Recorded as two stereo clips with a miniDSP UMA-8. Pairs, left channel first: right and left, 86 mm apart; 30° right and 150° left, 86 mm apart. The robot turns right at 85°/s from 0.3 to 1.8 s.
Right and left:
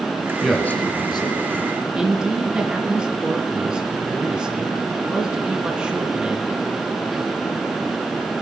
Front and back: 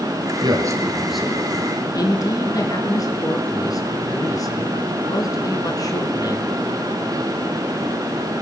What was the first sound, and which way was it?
A man speaking, 175° left.